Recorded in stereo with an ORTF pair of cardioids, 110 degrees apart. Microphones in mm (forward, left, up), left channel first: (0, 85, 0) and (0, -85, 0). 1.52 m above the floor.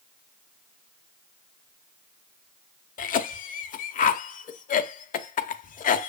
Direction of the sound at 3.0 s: 50° left.